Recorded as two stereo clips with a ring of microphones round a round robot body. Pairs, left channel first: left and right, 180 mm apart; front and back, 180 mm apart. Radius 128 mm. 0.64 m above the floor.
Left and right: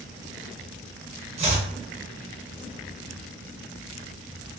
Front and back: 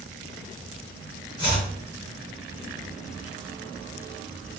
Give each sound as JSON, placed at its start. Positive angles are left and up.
{"t": 1.4, "sound": "chopping", "azimuth_deg": -60, "distance_m": 1.2}